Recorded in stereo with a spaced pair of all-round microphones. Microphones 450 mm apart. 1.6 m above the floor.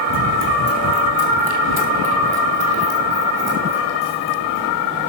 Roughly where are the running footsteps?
Left.